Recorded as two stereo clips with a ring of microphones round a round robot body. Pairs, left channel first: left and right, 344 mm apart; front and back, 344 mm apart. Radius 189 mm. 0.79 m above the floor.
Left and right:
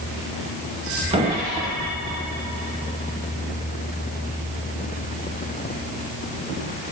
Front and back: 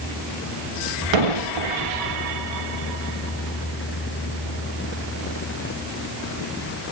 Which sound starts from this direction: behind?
An explosion, at 1.1 s.